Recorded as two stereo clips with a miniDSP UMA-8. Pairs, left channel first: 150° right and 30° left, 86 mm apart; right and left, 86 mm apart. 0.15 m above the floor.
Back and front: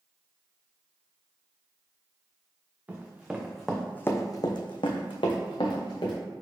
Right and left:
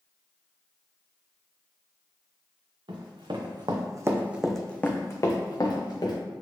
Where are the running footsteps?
100° left, 1.0 m; by 6.2 s 125° right, 1.3 m.